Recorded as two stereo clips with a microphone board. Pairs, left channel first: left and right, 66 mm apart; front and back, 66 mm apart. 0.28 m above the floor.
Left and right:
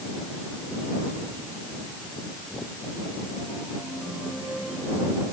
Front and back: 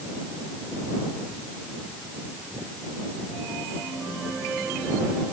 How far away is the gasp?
I don't hear a gasp.